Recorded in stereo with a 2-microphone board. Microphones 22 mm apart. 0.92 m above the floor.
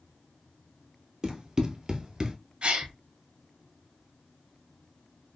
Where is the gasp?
50° right (ahead or behind), 1.2 m.